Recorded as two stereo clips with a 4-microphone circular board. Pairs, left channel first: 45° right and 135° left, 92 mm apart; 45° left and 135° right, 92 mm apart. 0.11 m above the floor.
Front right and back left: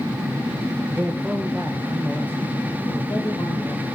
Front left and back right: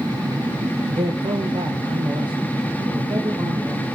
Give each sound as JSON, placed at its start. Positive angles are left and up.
{"t": 0.9, "sound": "a man speaking", "azimuth_deg": -145, "distance_m": 3.5}